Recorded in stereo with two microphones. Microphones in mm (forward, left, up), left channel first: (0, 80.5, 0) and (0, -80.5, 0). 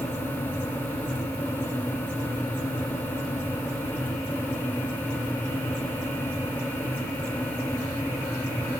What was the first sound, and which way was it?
Only background noise.